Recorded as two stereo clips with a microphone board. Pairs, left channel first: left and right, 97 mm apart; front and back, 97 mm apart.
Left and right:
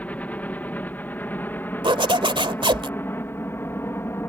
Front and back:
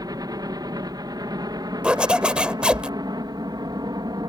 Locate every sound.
0.0 s a helicopter: 155° left; by 4.3 s 150° left
1.8 s a zipper: 105° right